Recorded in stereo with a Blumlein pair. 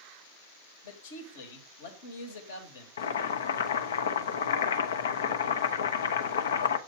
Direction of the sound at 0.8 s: 60° left.